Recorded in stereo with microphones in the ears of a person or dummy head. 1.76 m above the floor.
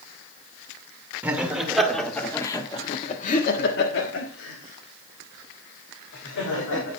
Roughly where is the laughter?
Centre.